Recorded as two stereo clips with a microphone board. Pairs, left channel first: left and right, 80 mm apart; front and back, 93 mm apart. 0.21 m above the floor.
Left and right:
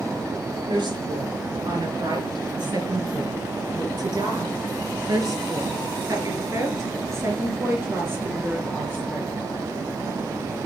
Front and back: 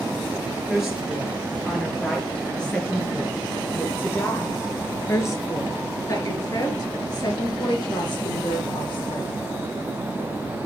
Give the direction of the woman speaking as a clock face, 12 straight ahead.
3 o'clock.